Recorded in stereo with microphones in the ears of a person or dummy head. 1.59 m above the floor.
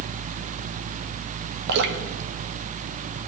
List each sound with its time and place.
1.7 s dripping: 60° right (ahead or behind), 1.1 m